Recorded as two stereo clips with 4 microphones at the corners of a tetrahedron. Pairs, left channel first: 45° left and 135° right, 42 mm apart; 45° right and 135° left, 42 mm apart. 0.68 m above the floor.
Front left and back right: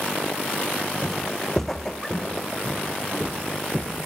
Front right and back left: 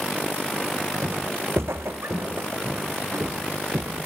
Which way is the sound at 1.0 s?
130° left.